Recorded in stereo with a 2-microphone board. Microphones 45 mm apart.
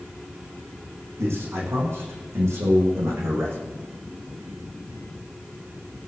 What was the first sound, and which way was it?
A man speaking, 80° right.